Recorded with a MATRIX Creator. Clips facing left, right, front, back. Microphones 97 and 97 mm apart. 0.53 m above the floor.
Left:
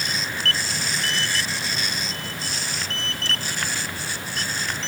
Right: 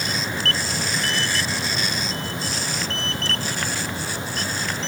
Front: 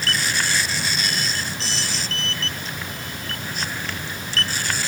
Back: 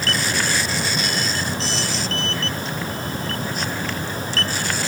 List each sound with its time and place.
Only background noise.